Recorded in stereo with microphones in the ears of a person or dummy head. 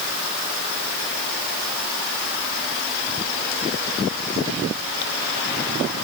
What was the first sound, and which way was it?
Only background noise.